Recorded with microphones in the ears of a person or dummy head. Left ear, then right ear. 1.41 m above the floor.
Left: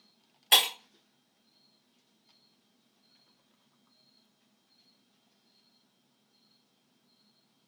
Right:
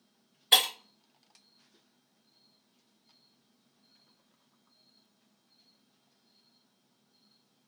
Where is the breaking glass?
15° left (ahead or behind), 1.4 m.